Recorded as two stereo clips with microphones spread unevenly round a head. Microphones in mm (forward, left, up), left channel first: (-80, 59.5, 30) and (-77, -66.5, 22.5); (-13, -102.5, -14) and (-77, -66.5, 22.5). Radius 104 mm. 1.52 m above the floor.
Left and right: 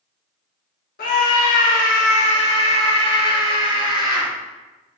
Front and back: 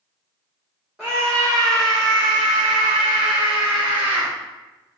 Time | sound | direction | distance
1.0 | a scream | 65° left | 1.4 m